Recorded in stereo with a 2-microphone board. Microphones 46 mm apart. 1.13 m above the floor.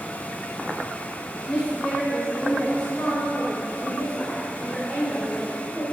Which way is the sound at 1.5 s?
30° left (ahead or behind).